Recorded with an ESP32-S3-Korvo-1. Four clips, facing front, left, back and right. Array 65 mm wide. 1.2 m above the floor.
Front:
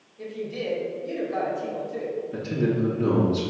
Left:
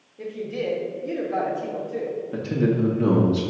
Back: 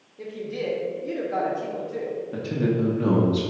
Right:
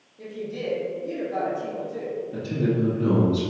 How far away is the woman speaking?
About 2.5 m.